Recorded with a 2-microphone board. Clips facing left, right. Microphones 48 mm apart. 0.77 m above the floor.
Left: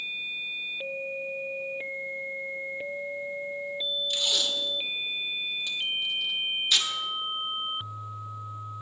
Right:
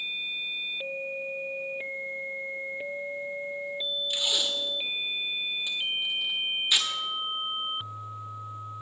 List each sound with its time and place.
4.1 s tape being pulled: 15° right (ahead or behind), 1.1 m